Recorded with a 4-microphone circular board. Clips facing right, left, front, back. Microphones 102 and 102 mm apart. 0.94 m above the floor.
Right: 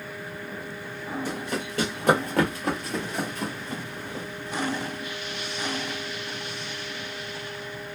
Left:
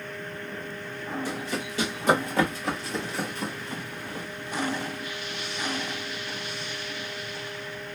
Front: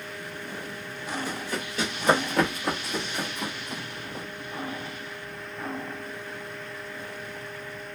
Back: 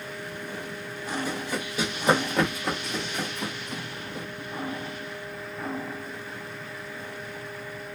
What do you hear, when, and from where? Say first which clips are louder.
1.2 s running footsteps: right 1 dB, back 2 dB; 110° right, 1.9 m; by 4.2 s 40° right, 1.3 m